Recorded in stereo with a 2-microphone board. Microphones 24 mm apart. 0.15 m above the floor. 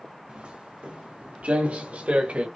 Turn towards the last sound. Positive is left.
turn(degrees=-75)  # may be behind; listen again after turning